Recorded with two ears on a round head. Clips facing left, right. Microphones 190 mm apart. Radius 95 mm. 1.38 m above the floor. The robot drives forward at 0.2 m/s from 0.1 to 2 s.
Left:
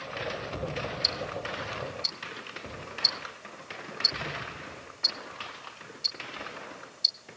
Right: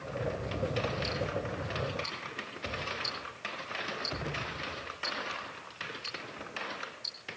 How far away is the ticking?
About 2 m.